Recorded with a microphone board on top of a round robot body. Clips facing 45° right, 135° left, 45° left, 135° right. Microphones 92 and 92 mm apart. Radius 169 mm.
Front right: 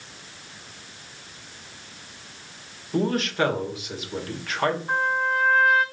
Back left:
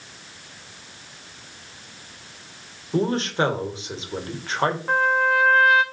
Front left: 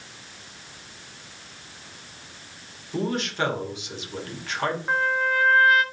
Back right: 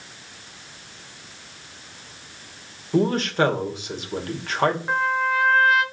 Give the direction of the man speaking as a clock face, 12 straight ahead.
6 o'clock.